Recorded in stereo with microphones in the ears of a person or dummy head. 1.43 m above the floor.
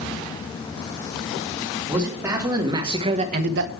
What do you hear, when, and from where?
1.9 s a man speaking: 5° right (ahead or behind), 3 m; by 3.7 s 65° right (ahead or behind), 0.8 m